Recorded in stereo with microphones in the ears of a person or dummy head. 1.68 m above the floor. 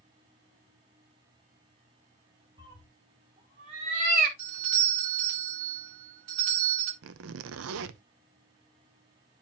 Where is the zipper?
75° right (ahead or behind), 0.7 m.